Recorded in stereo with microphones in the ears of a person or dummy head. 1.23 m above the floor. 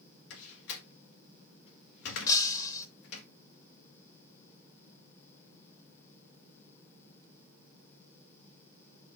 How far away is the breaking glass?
About 1.2 m.